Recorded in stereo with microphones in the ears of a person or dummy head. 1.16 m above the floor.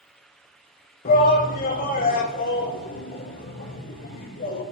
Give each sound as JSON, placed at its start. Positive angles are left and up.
{"t": 1.1, "sound": "a shout", "side_deg": 50, "distance_m": 1.8}